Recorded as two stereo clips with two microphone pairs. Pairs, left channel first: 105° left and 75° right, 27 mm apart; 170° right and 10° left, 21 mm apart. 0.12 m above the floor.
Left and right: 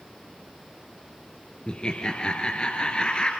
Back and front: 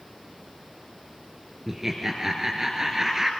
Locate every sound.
1.7 s laughter: 70° left, 2.5 m